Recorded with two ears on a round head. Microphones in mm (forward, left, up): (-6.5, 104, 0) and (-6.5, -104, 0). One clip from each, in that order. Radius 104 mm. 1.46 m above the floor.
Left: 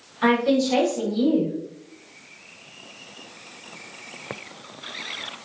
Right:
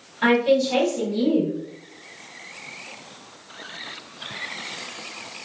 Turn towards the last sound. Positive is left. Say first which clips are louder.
# right 2 dB
turn(degrees=5)  # may be behind; listen again after turning